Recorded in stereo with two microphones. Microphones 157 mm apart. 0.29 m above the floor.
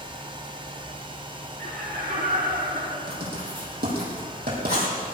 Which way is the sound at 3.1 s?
85° right.